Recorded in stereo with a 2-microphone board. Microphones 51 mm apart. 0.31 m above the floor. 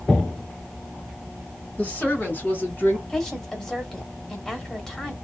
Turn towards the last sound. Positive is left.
turn(degrees=5)  # may be behind; listen again after turning